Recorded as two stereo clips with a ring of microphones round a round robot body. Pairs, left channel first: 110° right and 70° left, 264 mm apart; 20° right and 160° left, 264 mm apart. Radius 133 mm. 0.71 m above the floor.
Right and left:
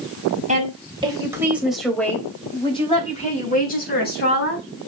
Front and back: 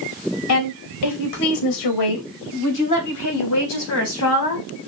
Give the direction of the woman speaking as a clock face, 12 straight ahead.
12 o'clock.